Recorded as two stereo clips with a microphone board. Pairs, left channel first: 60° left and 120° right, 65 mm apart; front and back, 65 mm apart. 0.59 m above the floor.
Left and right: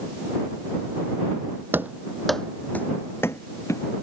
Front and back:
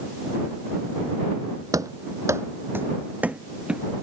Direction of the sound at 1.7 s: 170° right.